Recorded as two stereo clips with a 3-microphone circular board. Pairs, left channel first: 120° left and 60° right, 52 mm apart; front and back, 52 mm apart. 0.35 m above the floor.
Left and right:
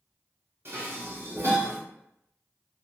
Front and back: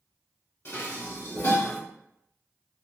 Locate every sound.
0.7 s dishes clattering: 25° right, 1.4 m